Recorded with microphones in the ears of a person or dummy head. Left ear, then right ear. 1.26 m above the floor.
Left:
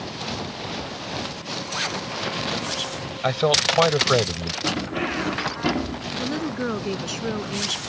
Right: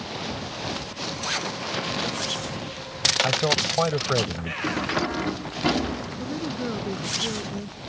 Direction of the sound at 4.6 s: 5° right (ahead or behind).